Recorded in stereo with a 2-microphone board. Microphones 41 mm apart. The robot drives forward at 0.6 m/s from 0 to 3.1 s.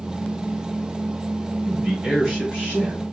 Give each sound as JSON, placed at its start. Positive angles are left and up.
{"t": 1.6, "sound": "a man speaking", "side_deg": -10, "distance_m": 2.0}